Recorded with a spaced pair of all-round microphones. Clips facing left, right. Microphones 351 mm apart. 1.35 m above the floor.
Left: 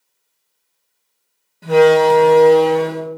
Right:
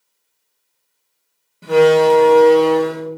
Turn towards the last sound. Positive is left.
turn(degrees=-5)  # may be behind; listen again after turning